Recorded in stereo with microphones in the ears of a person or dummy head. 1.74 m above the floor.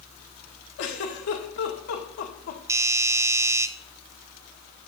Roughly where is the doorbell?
Centre.